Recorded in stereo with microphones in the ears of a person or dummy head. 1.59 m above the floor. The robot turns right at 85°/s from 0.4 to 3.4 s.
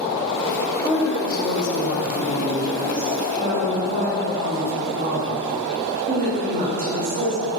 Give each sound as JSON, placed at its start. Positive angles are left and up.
{"t": 0.8, "sound": "a woman speaking", "azimuth_deg": 5, "distance_m": 2.5}